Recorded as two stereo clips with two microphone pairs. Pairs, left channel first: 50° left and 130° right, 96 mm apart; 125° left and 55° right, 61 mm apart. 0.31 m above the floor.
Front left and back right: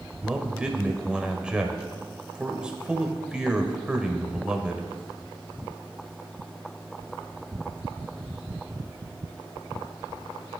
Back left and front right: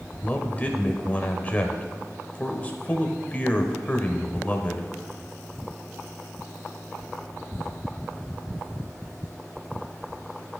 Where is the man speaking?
160° left, 0.9 m.